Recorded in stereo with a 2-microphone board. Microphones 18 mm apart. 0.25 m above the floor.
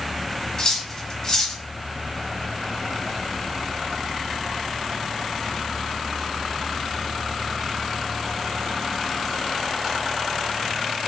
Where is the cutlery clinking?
30° left (ahead or behind), 0.8 m.